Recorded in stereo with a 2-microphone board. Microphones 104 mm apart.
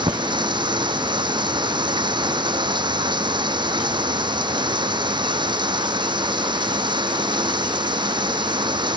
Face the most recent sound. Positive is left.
turn(degrees=-50)  # may be behind; listen again after turning